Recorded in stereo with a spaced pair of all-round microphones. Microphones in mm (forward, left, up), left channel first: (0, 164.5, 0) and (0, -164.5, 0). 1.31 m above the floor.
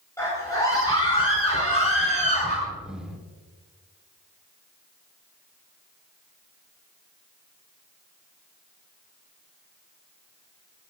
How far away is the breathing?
About 1.5 m.